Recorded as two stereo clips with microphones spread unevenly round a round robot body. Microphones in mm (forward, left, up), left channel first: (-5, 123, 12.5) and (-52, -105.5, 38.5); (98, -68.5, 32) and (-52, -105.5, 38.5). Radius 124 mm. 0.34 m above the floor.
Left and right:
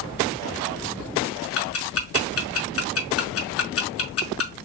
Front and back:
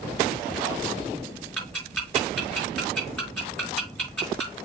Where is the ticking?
95° left, 4 m.